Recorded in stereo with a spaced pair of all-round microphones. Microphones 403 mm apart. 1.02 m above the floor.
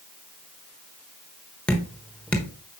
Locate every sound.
1.7 s dripping: 5° left (ahead or behind), 1.1 m